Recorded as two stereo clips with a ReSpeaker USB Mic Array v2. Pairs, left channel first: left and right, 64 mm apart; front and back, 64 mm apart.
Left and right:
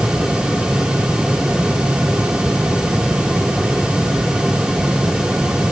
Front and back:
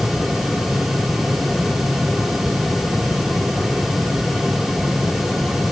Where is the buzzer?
No buzzer in this recording.